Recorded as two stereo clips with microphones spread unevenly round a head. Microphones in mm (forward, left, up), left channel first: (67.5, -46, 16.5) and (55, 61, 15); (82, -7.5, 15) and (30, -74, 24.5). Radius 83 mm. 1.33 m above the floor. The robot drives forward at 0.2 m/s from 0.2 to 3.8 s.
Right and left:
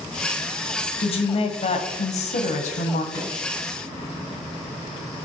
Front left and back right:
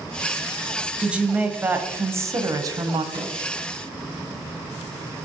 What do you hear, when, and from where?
1.0 s a woman speaking: 50° right, 0.7 m; by 3.0 s 85° right, 0.5 m
3.1 s a microwave: 150° right, 1.3 m